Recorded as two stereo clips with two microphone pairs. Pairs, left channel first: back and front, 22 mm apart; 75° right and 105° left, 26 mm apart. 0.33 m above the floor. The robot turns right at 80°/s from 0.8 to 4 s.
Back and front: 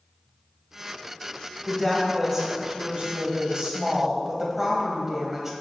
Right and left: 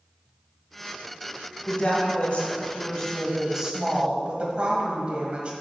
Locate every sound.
1.7 s a woman speaking: 120° right, 1.6 m; by 5.5 s 65° left, 1.6 m